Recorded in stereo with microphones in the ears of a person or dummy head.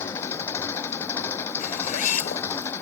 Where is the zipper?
40° left (ahead or behind).